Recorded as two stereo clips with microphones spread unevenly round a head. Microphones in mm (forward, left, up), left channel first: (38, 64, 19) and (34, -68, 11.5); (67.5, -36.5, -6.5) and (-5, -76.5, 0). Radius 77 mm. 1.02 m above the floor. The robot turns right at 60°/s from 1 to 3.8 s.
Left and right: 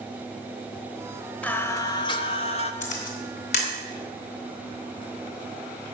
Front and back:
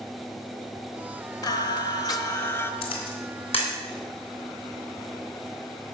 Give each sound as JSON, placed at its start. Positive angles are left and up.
{"t": 1.4, "sound": "singing", "azimuth_deg": 15, "distance_m": 0.9}
{"t": 2.8, "sound": "a camera shutter", "azimuth_deg": 65, "distance_m": 2.5}